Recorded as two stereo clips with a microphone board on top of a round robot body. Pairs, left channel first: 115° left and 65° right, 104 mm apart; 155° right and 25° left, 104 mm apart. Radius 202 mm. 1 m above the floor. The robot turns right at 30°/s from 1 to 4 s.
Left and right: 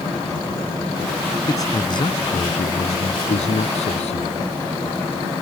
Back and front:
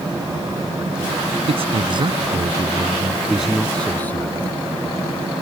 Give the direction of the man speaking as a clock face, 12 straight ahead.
10 o'clock.